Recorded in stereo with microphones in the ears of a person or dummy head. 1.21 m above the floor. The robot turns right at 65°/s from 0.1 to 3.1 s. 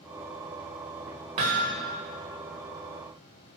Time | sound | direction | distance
1.4 | hammering | 15° right (ahead or behind) | 1.0 m